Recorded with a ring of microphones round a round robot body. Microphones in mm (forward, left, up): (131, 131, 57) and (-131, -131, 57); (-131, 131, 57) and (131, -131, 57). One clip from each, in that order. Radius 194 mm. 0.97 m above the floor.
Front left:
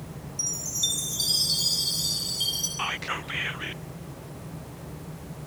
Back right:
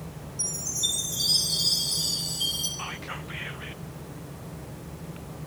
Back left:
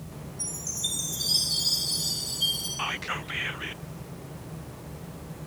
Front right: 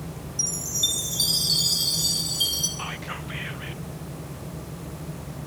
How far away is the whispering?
About 0.6 m.